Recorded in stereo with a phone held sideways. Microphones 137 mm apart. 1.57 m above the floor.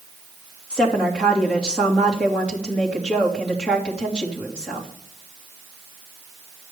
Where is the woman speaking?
5° left (ahead or behind), 3 m.